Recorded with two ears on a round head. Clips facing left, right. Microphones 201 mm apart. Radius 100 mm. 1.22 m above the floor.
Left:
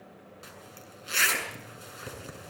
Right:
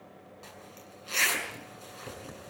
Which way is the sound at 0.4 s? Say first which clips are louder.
Even; 15° left (ahead or behind).